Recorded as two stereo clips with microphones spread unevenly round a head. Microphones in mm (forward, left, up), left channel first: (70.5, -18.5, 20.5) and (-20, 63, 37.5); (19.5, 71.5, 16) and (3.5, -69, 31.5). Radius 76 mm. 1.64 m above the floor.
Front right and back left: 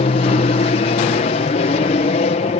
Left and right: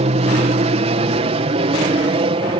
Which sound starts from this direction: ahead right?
An aircraft, at 0.0 s.